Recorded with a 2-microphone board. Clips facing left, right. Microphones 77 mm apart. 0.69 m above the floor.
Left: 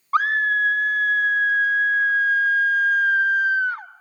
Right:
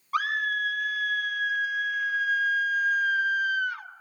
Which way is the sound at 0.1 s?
35° left (ahead or behind).